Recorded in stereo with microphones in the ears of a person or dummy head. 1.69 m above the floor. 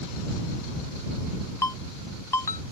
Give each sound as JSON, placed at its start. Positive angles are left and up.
{"t": 1.6, "sound": "a ringtone", "side_deg": 20}